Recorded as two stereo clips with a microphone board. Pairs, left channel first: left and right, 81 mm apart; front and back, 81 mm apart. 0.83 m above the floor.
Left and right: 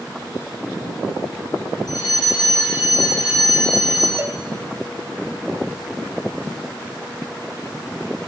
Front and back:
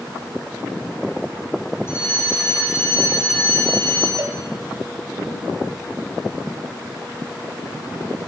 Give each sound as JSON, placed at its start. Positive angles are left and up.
{"t": 1.9, "sound": "a fire alarm", "azimuth_deg": 55, "distance_m": 9.0}
{"t": 4.2, "sound": "a cowbell", "azimuth_deg": -140, "distance_m": 1.3}